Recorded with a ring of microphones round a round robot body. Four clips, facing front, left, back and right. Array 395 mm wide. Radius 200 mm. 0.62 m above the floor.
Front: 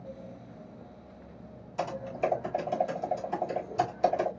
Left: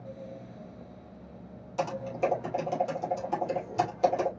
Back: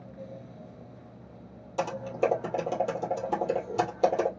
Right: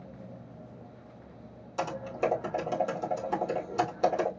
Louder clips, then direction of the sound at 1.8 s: Left 1 dB, back 3 dB; 160° right.